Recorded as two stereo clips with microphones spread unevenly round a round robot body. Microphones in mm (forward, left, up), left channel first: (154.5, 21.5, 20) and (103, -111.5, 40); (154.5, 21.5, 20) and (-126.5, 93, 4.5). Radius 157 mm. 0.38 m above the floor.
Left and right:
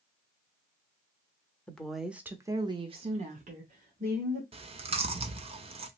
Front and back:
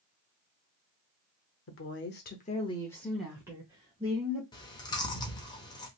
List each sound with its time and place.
1.7 s a woman speaking: straight ahead, 1.0 m; by 4.4 s 135° right, 1.4 m
4.5 s chewing: 85° right, 0.7 m